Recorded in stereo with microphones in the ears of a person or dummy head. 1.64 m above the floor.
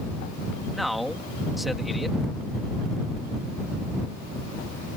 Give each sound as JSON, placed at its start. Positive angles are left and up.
{"t": 0.7, "sound": "a man speaking", "side_deg": 0}